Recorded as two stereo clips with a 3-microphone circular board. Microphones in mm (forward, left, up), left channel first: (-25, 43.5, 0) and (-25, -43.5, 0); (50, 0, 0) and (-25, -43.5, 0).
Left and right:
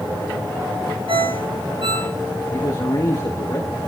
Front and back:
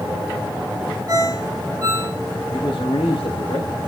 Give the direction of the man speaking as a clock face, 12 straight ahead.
10 o'clock.